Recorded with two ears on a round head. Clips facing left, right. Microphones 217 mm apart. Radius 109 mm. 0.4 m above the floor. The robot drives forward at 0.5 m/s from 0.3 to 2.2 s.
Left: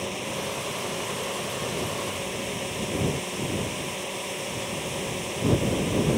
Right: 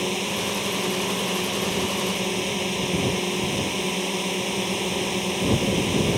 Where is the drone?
55° right (ahead or behind); by 6.2 s 60° right (ahead or behind).